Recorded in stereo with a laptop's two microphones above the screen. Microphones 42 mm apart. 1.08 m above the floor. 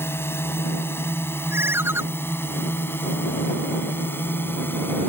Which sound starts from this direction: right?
A ringtone, at 1.5 s.